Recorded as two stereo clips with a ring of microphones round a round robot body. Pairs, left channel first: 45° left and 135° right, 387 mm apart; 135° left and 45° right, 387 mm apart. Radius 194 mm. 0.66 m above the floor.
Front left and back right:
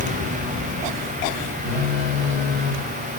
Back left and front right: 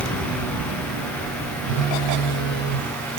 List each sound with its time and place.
1.6 s a phone buzzing: 70° right, 3 m